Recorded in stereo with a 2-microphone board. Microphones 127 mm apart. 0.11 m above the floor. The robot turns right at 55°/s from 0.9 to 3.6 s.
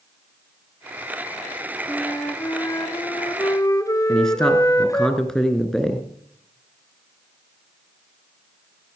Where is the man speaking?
5° left (ahead or behind), 1.4 m.